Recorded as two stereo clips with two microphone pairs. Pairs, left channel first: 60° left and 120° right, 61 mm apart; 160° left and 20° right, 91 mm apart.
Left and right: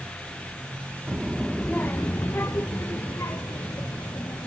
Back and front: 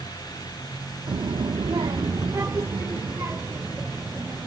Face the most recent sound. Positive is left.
turn(degrees=45)